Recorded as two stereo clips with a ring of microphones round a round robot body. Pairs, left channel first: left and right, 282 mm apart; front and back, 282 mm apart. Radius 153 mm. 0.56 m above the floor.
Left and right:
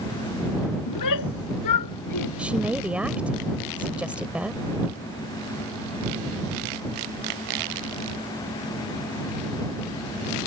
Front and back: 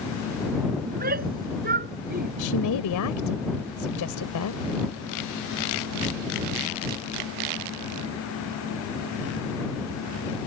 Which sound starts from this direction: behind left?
A shout, at 0.9 s.